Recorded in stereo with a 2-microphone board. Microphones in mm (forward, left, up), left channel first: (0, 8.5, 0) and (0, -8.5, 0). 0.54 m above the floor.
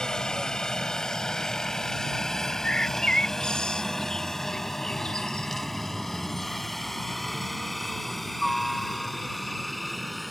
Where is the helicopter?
45° left (ahead or behind); by 10.3 s centre (ahead or behind).